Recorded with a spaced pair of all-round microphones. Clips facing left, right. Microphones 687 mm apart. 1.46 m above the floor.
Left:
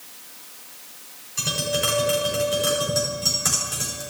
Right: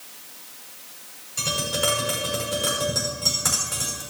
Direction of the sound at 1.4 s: 20° right (ahead or behind).